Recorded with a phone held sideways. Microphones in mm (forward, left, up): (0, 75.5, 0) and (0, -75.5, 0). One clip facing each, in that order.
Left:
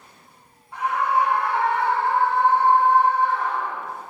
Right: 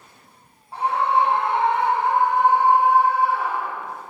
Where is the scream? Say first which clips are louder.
Right 2 dB; 35° right (ahead or behind), 3.5 m; by 4.0 s 5° right (ahead or behind), 6 m.